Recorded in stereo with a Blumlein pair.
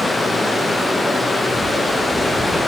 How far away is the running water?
About 0.9 m.